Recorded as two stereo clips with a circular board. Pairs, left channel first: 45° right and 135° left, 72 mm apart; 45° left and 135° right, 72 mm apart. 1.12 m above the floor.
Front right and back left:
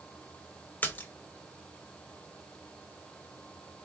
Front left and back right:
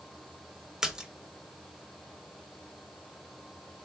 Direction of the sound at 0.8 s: 65° right.